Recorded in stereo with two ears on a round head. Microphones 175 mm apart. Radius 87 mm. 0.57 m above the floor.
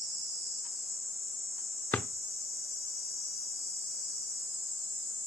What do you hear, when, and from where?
1.9 s a drawer: 5° left (ahead or behind), 0.7 m